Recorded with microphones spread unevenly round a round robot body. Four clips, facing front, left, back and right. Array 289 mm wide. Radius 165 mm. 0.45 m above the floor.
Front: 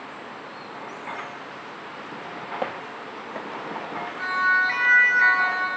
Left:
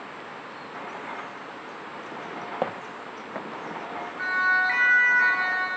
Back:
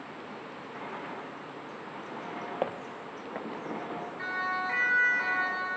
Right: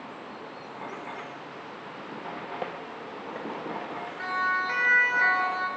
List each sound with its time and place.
2.6 s footsteps: 90° left, 1.5 m; by 3.6 s 80° left, 2.5 m
4.2 s a siren: 135° right, 6 m; by 5.7 s 140° right, 5 m